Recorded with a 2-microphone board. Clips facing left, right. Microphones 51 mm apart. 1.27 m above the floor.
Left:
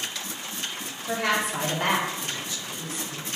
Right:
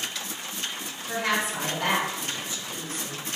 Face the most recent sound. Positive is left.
turn(degrees=-50)  # may be behind; listen again after turning